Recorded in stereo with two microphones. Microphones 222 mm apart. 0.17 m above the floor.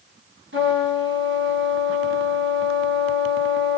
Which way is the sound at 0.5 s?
60° right (ahead or behind).